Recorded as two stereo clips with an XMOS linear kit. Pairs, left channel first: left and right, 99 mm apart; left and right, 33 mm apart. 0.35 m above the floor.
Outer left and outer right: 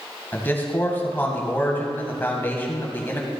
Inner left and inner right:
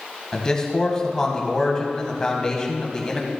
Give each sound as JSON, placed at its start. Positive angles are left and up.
{"t": 0.3, "sound": "a man speaking", "side_deg": 20, "distance_m": 1.8}